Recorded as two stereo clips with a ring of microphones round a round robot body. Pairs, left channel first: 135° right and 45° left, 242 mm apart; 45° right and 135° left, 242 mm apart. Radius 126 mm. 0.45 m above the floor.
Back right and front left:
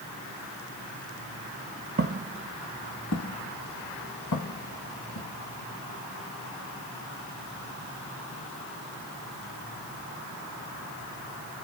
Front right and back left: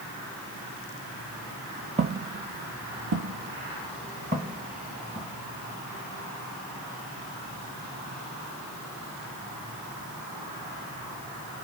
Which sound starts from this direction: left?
Footsteps, at 2.0 s.